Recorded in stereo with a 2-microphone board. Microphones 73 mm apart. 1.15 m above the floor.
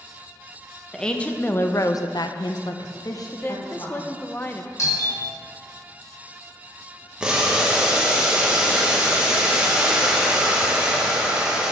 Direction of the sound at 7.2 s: 10° right (ahead or behind).